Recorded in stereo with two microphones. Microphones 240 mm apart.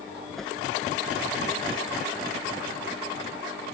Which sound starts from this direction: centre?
A whoosh, at 0.4 s.